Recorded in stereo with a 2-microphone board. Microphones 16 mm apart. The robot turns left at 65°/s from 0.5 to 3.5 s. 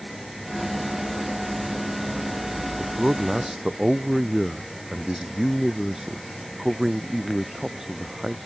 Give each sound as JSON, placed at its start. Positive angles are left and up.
{"t": 2.8, "sound": "a man speaking", "azimuth_deg": -100}